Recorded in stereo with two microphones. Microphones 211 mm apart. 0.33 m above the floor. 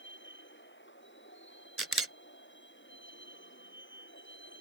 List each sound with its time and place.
0.0 s a vehicle: 60° left (ahead or behind)
1.8 s a camera shutter: 85° right